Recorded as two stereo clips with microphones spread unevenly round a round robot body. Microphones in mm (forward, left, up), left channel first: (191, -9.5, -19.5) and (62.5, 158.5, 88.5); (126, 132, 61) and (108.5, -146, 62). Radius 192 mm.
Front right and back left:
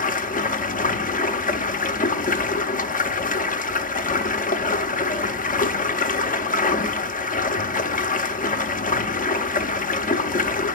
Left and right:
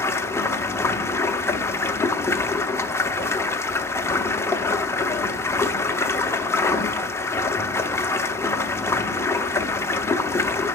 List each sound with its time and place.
0.0 s running water: 5° left, 0.8 m